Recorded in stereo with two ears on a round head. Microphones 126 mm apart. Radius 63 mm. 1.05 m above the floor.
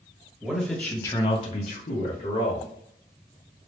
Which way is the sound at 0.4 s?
5° right (ahead or behind).